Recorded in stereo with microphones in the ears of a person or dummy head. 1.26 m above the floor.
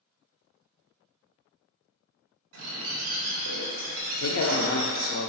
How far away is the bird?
About 1.2 m.